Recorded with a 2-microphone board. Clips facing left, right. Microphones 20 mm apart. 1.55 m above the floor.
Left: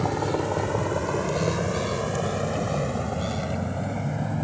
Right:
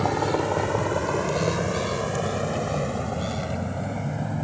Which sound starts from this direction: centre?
A vehicle, at 0.0 s.